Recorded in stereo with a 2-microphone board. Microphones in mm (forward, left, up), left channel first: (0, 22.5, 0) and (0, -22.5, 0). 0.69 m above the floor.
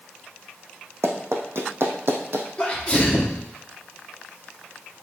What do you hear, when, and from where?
1.0 s running footsteps: 70° right (ahead or behind), 1.9 m; by 2.5 s 60° right (ahead or behind), 1.9 m
2.6 s a sneeze: 25° left (ahead or behind), 1.1 m